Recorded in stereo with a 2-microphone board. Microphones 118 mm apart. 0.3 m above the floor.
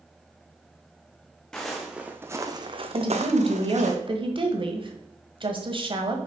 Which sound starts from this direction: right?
A woman speaking, at 2.9 s.